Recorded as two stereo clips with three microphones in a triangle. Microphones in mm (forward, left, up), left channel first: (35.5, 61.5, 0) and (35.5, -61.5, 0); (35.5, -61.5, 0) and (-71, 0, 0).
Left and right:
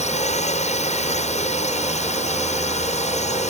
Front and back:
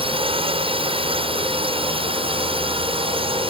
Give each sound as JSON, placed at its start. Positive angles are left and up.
{"t": 0.0, "sound": "a drone", "azimuth_deg": 110}